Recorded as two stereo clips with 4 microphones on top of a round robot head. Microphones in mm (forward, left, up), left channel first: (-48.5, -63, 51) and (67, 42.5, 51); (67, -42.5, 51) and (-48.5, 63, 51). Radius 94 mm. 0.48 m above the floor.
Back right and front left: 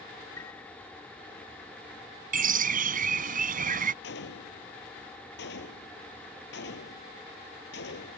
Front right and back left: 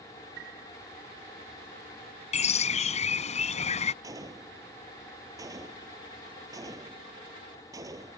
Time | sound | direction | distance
0.4 | a piano | 150° left | ?
2.3 | a bird | 5° left | ?
4.0 | a gunshot | 150° right | ?